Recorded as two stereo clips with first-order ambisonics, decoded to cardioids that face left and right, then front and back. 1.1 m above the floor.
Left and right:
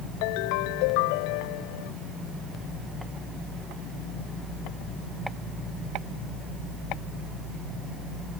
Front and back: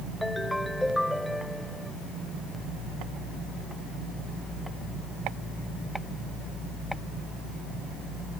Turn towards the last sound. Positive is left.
turn(degrees=90)